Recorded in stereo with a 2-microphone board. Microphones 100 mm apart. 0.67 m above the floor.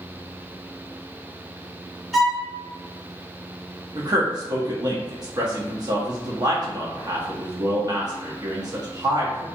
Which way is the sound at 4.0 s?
40° right (ahead or behind).